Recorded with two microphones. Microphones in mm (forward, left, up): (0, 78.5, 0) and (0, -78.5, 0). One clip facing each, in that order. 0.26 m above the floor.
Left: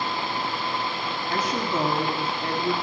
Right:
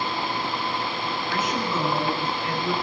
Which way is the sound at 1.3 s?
40° left (ahead or behind).